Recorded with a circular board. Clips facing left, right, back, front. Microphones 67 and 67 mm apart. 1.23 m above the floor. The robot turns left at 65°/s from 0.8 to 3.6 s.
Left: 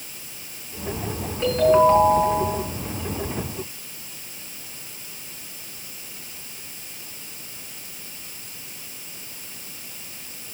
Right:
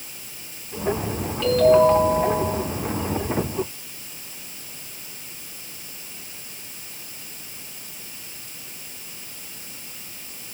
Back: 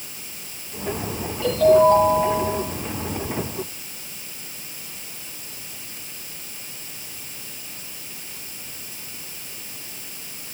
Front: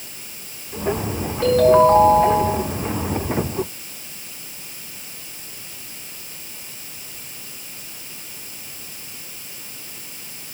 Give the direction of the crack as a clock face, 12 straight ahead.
I don't hear a crack.